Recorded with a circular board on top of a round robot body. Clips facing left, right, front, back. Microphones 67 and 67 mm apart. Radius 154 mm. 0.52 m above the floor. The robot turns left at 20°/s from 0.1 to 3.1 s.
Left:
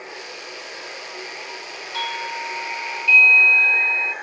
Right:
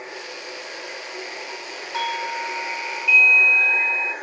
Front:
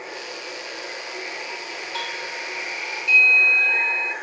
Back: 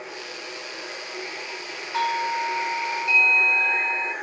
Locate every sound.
0.0 s running water: 30° right, 2 m; by 4.2 s 90° right, 2 m
1.9 s a doorbell: 140° right, 1.2 m; by 4.1 s 165° right, 1.2 m